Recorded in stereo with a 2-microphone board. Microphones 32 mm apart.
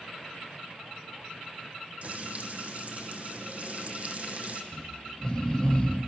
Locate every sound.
2.0 s frying: 50° right (ahead or behind), 2.5 m
4.7 s snoring: 20° left (ahead or behind), 4 m